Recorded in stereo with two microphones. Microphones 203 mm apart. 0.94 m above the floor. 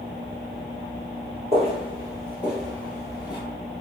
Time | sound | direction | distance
1.5 | footsteps | 35° right (ahead or behind) | 1.1 m